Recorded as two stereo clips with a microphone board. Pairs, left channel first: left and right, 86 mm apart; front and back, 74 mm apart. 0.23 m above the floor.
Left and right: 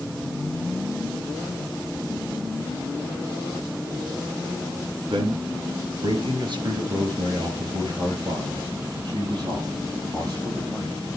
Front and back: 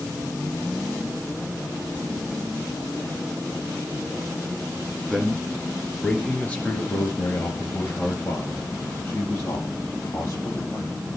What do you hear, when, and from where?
5.1 s a man speaking: 85° right, 3 m; by 11.0 s 45° right, 7 m